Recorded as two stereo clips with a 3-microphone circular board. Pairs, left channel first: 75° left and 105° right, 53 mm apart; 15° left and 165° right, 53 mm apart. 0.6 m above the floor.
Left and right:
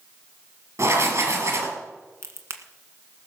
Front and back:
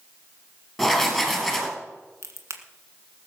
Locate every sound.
0.8 s writing: 75° right, 3 m
2.2 s a crack: 140° right, 1.7 m